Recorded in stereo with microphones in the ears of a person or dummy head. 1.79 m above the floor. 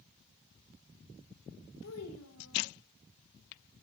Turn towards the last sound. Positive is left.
turn(degrees=75)  # may be behind; listen again after turning